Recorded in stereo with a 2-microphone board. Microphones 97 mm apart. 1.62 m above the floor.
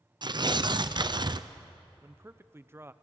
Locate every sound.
0.2 s tearing paper: 50° right (ahead or behind), 0.6 m
2.0 s a man speaking: 25° right (ahead or behind), 0.7 m